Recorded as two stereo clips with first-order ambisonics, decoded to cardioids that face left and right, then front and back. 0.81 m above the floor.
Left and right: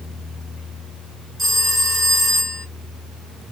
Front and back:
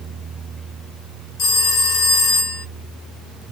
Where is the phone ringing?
15° right, 1.3 m.